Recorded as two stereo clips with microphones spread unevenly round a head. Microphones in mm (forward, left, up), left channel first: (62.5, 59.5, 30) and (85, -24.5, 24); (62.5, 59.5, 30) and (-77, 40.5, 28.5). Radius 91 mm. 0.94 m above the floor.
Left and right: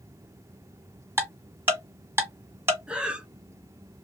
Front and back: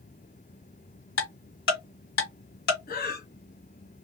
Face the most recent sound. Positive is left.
turn(degrees=0)